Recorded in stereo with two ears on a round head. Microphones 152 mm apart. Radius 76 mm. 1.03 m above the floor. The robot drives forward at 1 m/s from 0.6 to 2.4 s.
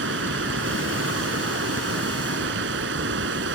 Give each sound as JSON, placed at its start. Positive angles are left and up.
{"t": 0.0, "sound": "running water", "side_deg": -85}